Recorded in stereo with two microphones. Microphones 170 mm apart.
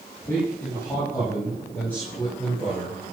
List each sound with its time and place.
0.3 s a man speaking: 15° left (ahead or behind), 9 m; by 3.0 s 5° left (ahead or behind), 10.5 m